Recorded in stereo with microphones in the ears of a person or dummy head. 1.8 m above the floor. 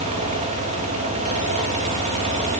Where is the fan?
40° right (ahead or behind), 4 m.